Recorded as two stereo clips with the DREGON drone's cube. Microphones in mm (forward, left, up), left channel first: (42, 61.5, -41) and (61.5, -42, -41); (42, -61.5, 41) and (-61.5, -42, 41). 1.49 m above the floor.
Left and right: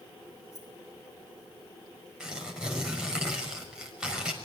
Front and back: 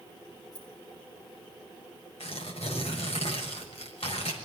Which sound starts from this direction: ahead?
Tearing paper, at 2.2 s.